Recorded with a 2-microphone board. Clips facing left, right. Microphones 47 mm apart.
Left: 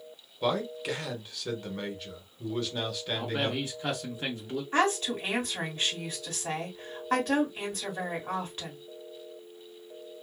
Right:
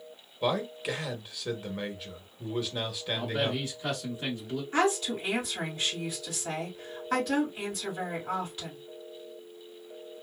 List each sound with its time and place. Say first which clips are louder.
0.4 s a man speaking: even; 5° right (ahead or behind), 0.8 m
3.1 s a man speaking: right 1 dB; 15° left (ahead or behind), 0.8 m
4.7 s a woman speaking: even; 45° left (ahead or behind), 1.8 m